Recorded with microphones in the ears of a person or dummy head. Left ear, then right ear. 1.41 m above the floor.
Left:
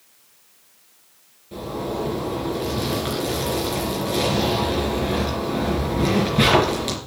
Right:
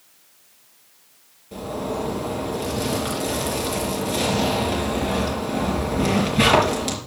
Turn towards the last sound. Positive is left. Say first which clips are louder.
# even
turn(degrees=-5)  # may be behind; listen again after turning